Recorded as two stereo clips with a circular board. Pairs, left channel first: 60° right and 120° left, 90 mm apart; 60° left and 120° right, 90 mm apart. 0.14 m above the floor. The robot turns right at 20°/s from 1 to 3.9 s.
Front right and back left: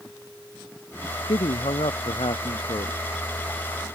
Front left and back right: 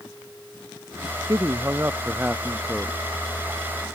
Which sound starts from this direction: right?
A man speaking, at 1.3 s.